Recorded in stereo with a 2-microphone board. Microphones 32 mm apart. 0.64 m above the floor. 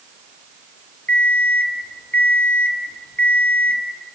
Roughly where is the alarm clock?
Left.